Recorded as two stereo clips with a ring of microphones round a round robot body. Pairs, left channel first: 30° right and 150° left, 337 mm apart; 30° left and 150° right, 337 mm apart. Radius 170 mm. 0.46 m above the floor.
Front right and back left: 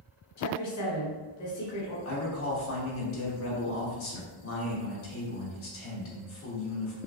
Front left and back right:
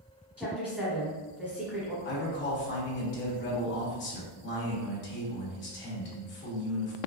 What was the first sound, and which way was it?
A woman speaking, 55° right.